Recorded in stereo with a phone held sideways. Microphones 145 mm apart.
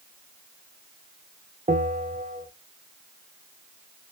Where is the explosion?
I don't hear an explosion.